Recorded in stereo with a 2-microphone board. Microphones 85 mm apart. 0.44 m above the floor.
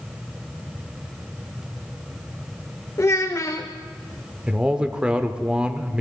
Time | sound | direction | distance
3.0 | a child speaking | 35° left (ahead or behind) | 0.6 m
4.5 | a man speaking | 10° right (ahead or behind) | 0.8 m